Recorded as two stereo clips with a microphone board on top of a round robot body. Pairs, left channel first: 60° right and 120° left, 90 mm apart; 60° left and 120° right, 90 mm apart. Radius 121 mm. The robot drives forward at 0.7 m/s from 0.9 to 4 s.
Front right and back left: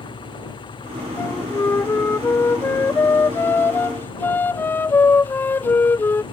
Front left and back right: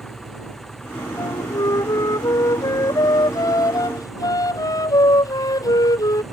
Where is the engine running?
25° right; by 6.3 s 30° right.